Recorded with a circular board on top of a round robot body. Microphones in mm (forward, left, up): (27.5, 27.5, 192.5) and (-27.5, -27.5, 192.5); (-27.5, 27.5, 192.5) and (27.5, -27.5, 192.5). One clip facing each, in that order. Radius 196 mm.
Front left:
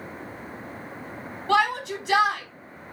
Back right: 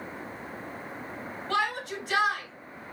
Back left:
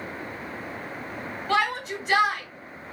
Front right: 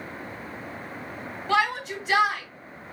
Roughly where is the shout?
Ahead left.